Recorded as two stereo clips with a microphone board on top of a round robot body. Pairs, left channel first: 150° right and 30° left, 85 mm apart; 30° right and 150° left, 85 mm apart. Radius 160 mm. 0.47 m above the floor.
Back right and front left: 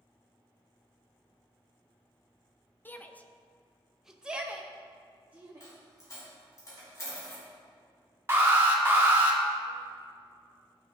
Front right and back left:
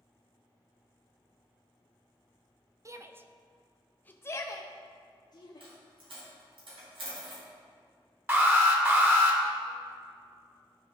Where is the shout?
155° left, 0.9 m; by 5.7 s 35° right, 1.3 m.